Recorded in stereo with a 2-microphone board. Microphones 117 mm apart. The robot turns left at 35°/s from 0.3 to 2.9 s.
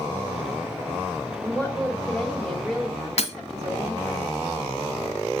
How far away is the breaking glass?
About 1.3 m.